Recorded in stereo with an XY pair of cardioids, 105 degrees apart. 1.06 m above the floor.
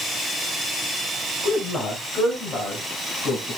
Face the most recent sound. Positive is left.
turn(degrees=55)